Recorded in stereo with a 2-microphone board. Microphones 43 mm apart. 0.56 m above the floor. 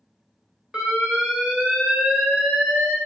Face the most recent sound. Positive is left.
turn(degrees=-25)  # may be behind; listen again after turning